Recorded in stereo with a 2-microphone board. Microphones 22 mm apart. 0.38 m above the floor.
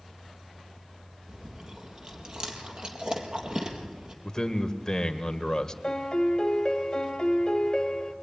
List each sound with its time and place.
1.3 s chewing: 40° right (ahead or behind), 4 m
4.2 s a man speaking: 25° left (ahead or behind), 1.7 m
5.8 s a piano: 35° left (ahead or behind), 1.8 m